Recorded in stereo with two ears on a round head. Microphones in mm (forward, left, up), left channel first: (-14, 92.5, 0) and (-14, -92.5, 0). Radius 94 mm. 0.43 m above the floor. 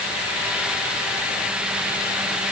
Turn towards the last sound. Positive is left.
No sound to turn to.